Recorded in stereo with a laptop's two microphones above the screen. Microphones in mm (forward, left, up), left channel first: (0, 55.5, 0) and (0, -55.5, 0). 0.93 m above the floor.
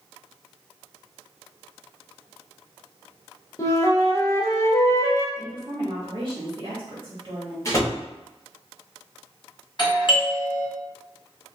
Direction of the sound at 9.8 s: 45° left (ahead or behind).